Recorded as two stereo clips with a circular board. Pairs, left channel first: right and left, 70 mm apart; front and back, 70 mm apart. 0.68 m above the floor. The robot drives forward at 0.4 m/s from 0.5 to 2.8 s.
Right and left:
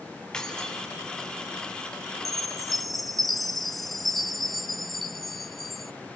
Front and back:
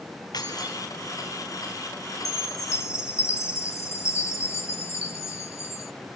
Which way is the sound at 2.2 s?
Straight ahead.